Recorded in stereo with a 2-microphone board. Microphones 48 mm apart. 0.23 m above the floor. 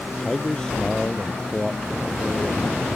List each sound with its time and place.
0.2 s a man speaking: 10° left (ahead or behind)